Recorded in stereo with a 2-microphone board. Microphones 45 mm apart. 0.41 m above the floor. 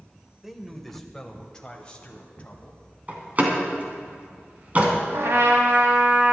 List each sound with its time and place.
0.4 s a man speaking: 10° right (ahead or behind), 1.3 m; by 2.8 s 30° left (ahead or behind), 2.5 m
3.1 s a door slam: 35° right (ahead or behind), 2.5 m
5.1 s a trumpet: 70° right (ahead or behind), 2 m